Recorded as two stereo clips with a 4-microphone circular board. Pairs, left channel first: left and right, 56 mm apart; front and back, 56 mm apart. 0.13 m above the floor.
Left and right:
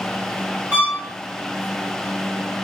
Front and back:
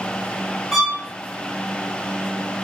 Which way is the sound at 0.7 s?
90° right.